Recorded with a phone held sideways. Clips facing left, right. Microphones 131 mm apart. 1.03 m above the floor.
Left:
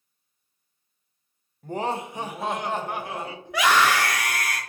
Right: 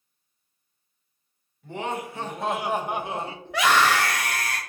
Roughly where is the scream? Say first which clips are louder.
Even; centre.